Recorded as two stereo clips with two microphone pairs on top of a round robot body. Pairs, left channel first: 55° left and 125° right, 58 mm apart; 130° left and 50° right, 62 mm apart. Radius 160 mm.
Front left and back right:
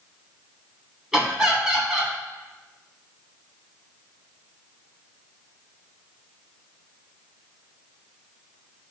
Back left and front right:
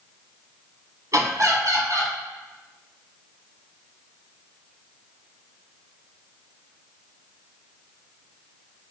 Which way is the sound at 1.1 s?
45° right.